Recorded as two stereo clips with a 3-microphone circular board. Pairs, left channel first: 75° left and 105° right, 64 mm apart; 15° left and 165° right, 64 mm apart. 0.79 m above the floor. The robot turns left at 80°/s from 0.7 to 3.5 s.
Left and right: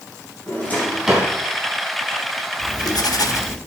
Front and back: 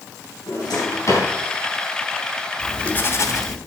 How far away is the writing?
About 1.5 m.